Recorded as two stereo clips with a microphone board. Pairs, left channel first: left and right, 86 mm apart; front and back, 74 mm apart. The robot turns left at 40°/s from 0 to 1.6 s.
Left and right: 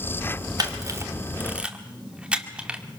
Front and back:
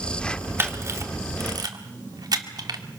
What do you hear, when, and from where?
0.6 s a camera shutter: 125° right, 1.8 m; by 2.8 s 165° right, 1.8 m